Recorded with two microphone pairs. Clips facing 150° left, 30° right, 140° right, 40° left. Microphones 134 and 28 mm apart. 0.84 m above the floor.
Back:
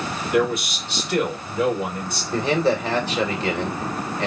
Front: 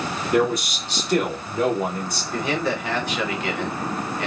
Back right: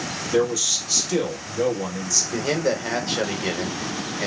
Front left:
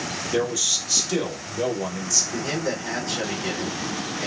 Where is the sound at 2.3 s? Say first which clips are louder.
Back 5 dB, back right 4 dB; 170° right, 1.0 m.